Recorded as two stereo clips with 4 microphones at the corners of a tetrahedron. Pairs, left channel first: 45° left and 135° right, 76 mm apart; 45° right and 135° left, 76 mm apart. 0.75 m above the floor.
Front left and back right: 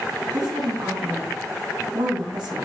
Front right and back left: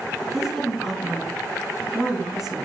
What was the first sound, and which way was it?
A woman speaking, 140° right.